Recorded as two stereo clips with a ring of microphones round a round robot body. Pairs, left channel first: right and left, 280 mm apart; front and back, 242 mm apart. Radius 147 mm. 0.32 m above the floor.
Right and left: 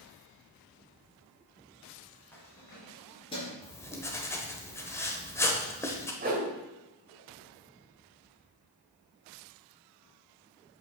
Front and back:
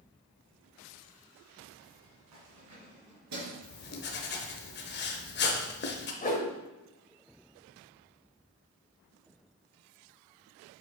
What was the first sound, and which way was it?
Keys jangling, 175° right.